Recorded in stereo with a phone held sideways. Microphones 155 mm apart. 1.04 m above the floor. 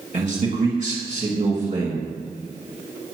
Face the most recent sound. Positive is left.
turn(degrees=-40)  # may be behind; listen again after turning